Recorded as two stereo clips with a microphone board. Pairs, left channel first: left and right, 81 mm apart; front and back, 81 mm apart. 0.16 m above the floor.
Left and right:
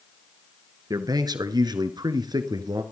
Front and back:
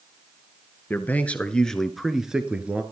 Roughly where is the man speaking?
Ahead right.